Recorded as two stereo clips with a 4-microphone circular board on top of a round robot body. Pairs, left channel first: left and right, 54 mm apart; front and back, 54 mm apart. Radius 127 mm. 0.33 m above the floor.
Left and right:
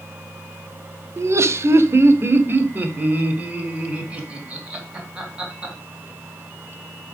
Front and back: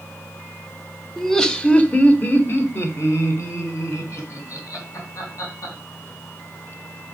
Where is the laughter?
85° right, 1.4 m; by 5.7 s 15° right, 4 m.